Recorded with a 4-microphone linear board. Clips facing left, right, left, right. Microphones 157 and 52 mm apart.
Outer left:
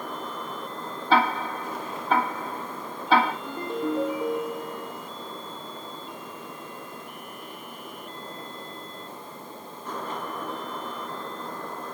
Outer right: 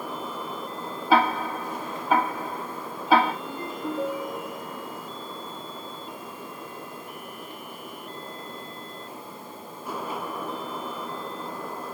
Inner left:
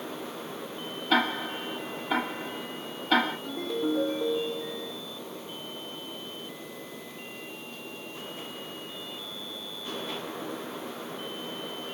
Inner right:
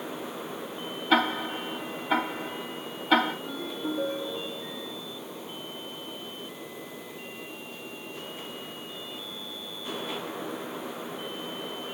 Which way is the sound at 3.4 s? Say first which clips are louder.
Outer left 3 dB, inner left 3 dB; 65° left (ahead or behind).